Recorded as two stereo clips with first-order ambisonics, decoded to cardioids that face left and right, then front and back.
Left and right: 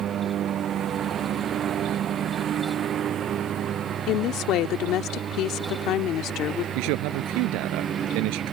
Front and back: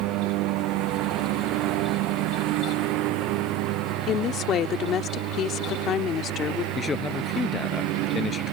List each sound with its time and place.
0.0 s a lawn mower: 145° right; by 8.5 s 150° right
4.1 s a woman speaking: 50° left
6.8 s a man speaking: 70° right